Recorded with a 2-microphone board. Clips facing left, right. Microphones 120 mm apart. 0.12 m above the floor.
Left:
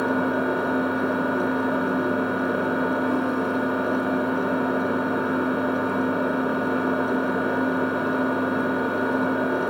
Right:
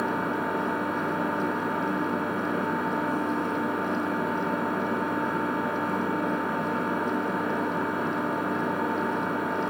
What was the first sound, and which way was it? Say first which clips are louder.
An engine running: left 5 dB; 70° left (ahead or behind).